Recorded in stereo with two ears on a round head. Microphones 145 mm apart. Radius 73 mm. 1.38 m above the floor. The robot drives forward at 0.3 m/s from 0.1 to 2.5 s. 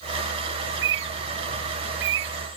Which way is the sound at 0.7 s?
75° right (ahead or behind).